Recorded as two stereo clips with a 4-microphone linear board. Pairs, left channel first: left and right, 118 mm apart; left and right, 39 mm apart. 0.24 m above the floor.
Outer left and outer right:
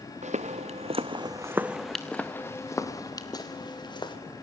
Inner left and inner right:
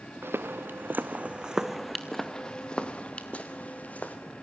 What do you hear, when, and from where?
0.2 s footsteps: 80° right, 1.3 m; by 4.2 s 40° left (ahead or behind), 3 m